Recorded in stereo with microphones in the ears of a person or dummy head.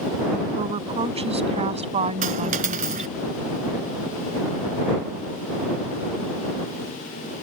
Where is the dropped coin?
45° right (ahead or behind).